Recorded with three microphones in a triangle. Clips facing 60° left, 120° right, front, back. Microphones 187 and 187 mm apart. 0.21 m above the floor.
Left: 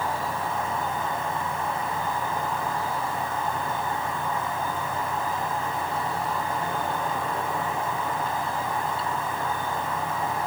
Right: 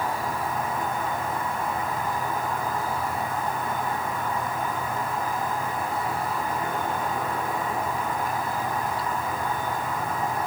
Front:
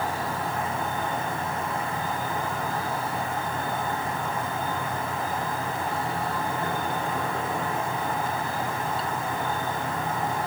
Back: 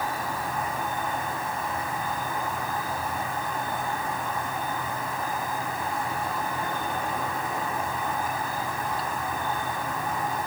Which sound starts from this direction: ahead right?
An insect, at 0.0 s.